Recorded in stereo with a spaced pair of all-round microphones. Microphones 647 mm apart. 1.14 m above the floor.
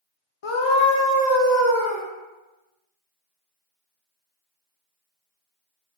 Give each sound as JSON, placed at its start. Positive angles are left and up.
{"t": 0.4, "sound": "a scream", "side_deg": 50, "distance_m": 0.6}